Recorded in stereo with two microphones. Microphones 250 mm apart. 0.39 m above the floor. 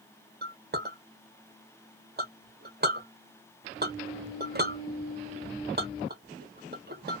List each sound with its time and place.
0.4 s a clink: 40° right (ahead or behind), 0.9 m